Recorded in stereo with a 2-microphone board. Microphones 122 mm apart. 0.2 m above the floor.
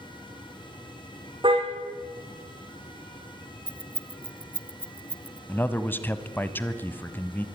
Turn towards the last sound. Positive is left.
turn(degrees=15)  # may be behind; listen again after turning